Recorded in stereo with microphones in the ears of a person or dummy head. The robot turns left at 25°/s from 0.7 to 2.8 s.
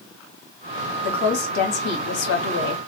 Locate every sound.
1.0 s a woman speaking: 130° left, 0.9 m; by 2.8 s 85° left, 0.9 m